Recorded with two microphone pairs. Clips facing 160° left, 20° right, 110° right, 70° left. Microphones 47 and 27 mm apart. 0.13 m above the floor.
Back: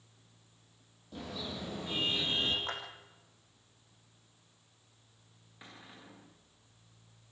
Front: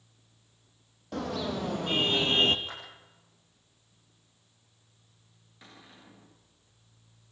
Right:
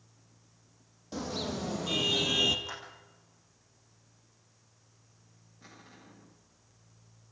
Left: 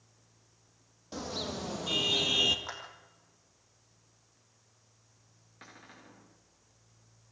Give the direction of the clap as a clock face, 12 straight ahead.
8 o'clock.